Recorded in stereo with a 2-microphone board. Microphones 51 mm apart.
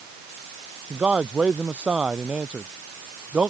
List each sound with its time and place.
0.9 s a man speaking: 25° right (ahead or behind)